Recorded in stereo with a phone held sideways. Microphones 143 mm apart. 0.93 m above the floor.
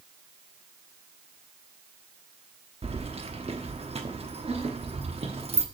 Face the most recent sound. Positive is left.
turn(degrees=-45)  # may be behind; listen again after turning